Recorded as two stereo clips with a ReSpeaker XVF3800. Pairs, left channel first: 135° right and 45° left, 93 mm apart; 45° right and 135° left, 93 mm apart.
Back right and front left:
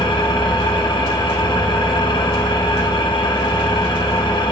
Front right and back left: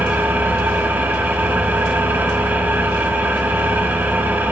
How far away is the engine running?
About 2.0 m.